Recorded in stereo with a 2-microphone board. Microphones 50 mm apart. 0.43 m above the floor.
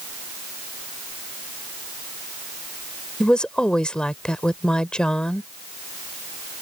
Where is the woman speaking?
20° left (ahead or behind).